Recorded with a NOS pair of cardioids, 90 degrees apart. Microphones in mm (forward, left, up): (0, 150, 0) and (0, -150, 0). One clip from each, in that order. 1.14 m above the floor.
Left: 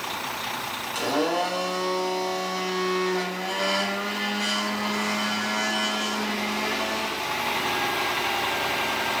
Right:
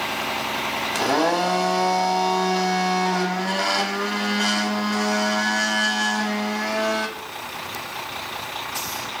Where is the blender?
45° right, 1.0 m.